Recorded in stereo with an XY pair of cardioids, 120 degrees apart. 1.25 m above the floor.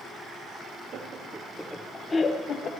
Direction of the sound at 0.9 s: 45° right.